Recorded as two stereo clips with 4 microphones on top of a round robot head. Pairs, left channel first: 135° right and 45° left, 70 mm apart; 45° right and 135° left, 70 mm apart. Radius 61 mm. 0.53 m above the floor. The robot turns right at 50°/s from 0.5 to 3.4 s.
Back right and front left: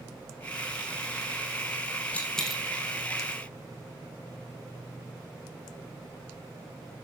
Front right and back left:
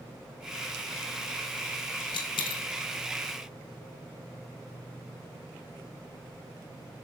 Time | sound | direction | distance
2.1 | a dropped coin | 65° right | 1.8 m